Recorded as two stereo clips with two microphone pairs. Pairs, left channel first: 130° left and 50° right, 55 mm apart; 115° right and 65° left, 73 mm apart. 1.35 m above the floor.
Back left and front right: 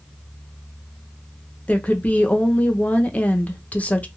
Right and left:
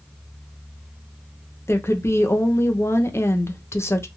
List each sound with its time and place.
1.7 s a woman speaking: 170° right, 0.6 m